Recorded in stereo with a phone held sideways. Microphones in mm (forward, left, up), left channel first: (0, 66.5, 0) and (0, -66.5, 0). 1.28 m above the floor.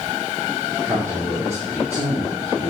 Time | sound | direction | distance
0.8 | a man speaking | 25° right (ahead or behind) | 4.5 m